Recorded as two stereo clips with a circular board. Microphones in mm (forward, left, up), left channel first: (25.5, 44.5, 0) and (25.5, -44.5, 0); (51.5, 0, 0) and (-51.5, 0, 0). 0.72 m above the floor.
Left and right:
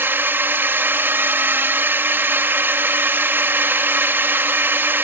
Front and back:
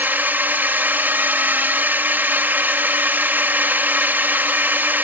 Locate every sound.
0.0 s a drone: 125° right